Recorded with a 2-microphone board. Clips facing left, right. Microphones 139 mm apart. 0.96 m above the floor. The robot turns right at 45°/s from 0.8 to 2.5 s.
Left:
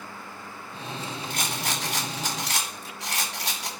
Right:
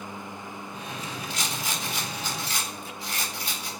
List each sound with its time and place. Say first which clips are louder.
1.3 s a rattle: left 2 dB; 50° left, 2.5 m; by 3.7 s 105° left, 2.5 m